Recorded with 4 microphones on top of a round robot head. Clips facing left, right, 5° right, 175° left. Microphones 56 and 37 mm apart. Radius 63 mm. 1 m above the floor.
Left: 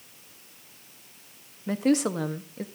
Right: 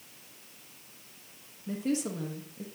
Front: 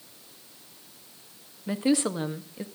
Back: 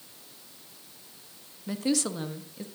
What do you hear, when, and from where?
1.7 s a woman speaking: 60° left, 1.2 m